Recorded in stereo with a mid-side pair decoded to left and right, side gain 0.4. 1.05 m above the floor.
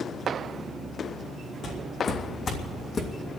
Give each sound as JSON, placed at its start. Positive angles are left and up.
{"t": 1.6, "sound": "footsteps", "azimuth_deg": 70, "distance_m": 4.0}